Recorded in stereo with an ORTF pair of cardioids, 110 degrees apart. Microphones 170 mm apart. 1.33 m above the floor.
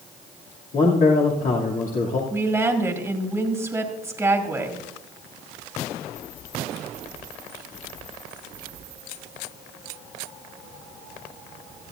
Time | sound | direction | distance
0.7 | a man speaking | 50° left | 2.5 m
2.3 | a woman speaking | 10° right | 2 m